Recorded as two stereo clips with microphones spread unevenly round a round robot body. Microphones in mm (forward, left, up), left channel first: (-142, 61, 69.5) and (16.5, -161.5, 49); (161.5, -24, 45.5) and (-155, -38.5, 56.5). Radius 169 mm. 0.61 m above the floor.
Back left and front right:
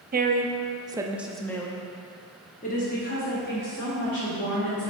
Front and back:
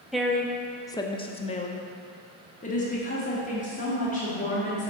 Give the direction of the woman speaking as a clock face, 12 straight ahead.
3 o'clock.